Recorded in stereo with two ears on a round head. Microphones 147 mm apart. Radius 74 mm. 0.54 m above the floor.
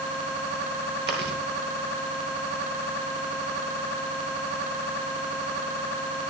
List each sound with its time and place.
1.1 s chewing: 65° right (ahead or behind), 7.5 m